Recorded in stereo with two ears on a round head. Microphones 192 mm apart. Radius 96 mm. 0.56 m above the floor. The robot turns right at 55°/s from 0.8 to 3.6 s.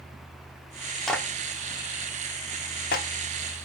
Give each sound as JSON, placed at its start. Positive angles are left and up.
{"t": 1.1, "sound": "a clap", "side_deg": 0, "distance_m": 1.0}